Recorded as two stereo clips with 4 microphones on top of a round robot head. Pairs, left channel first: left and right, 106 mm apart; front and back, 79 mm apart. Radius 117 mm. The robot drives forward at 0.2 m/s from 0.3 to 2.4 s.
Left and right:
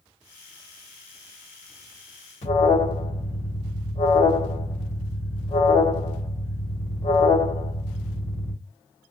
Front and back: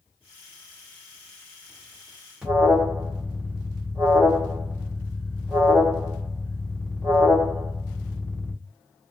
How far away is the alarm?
About 2 m.